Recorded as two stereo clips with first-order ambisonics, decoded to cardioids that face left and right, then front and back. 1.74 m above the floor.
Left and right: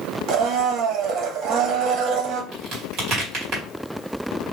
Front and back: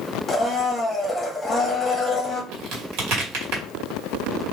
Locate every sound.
0.3 s a blender: 80° right, 1.0 m
2.5 s a crack: 150° right, 2.5 m